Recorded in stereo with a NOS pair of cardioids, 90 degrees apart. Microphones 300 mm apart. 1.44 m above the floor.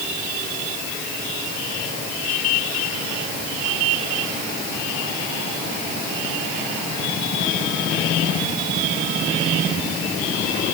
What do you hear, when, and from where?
Only background noise.